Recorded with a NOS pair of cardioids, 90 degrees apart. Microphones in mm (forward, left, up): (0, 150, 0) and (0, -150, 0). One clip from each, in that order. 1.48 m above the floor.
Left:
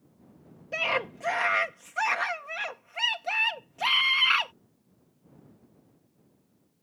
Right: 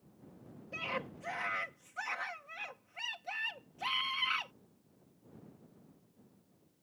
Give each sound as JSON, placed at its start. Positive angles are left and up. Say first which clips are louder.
{"t": 0.7, "sound": "a scream", "louder": "left 11 dB", "azimuth_deg": 70}